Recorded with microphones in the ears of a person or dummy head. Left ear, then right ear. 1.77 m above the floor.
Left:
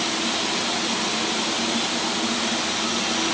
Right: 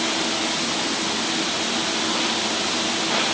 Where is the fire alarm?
I don't hear a fire alarm.